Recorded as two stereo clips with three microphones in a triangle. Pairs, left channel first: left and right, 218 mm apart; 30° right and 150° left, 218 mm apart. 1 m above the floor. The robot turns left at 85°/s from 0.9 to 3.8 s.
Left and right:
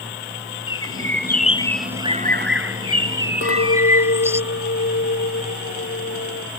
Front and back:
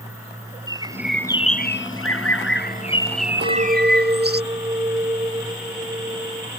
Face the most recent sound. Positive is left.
turn(degrees=80)